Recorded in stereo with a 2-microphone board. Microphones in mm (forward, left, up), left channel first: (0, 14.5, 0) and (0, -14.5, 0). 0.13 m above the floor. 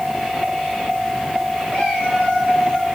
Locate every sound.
1.7 s a cat meowing: 75° right (ahead or behind), 7.5 m; by 2.9 s 65° right (ahead or behind), 8 m